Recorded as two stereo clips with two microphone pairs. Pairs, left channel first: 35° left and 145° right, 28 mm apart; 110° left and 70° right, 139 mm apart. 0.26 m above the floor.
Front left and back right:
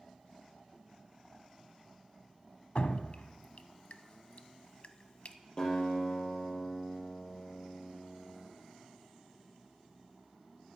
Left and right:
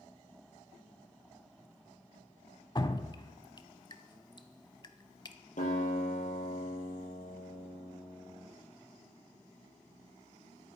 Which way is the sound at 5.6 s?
95° left.